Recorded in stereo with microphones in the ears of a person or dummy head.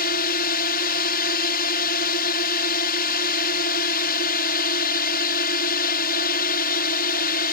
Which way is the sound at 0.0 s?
45° left (ahead or behind).